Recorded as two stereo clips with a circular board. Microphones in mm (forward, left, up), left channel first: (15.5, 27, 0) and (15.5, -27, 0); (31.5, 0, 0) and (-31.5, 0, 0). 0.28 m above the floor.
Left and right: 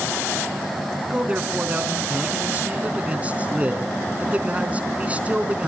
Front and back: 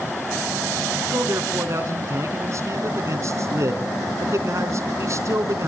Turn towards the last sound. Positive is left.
turn(degrees=-150)